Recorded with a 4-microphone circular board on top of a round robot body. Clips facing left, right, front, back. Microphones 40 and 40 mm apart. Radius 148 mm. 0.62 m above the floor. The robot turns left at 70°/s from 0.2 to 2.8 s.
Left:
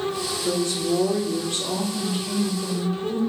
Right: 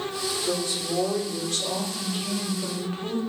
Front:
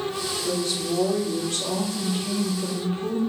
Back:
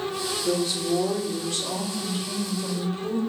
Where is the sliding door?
I don't hear a sliding door.